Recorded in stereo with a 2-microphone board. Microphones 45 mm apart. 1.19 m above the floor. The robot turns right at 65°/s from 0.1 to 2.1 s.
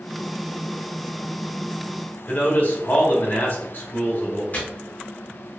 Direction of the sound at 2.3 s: 50° left (ahead or behind).